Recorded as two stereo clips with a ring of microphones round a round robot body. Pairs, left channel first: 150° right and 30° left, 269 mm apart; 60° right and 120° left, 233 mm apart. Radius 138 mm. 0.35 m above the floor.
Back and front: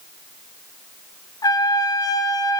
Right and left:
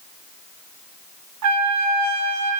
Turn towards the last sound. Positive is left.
turn(degrees=135)